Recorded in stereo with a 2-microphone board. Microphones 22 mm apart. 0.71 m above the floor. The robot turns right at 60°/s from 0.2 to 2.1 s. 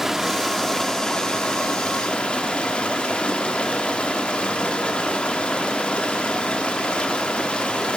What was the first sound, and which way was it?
Running water, 15° right.